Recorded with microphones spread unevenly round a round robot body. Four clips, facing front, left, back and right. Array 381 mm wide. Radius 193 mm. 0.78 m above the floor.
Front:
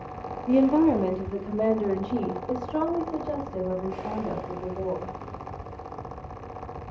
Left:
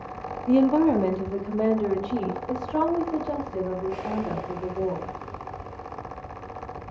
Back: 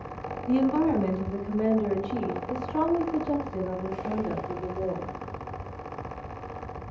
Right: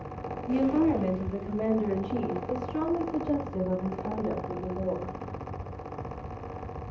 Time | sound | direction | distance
0.5 | a woman speaking | 60° left | 1.3 m